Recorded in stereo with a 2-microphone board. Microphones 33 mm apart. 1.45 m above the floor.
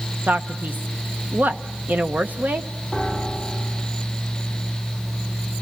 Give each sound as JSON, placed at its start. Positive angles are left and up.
{"t": 0.3, "sound": "a man speaking", "side_deg": -60, "distance_m": 1.0}
{"t": 2.9, "sound": "a piano", "side_deg": -15, "distance_m": 5.0}